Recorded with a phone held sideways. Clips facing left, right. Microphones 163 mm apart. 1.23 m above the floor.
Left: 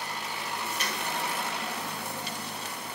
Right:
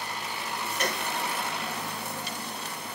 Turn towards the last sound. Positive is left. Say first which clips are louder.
# right 3 dB
turn(degrees=-50)  # may be behind; listen again after turning